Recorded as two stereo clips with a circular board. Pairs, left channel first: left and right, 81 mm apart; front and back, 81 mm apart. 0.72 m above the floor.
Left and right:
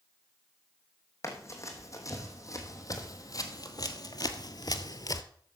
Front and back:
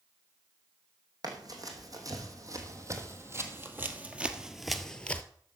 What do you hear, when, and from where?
1.2 s running footsteps: 140° left, 3 m; by 5.2 s 65° left, 1.1 m